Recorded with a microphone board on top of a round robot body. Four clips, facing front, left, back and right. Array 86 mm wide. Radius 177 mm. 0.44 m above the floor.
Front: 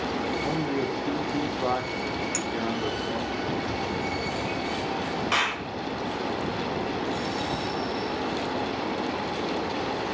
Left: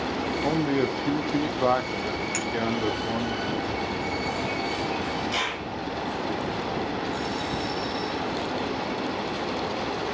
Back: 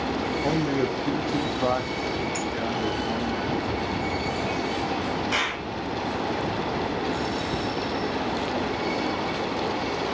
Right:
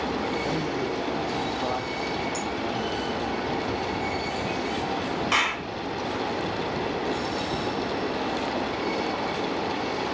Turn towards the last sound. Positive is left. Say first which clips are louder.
# right 4 dB, front 1 dB
turn(degrees=-55)